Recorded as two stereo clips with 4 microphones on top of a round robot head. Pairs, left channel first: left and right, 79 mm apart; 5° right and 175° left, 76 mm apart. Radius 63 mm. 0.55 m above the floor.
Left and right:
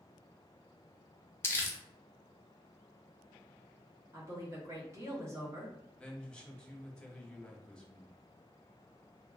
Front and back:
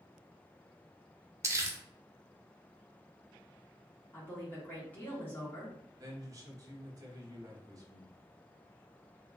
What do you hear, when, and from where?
1.4 s crumpling: 140° left, 0.8 m
4.1 s a woman speaking: 60° right, 1.3 m
6.0 s a man speaking: 165° left, 0.9 m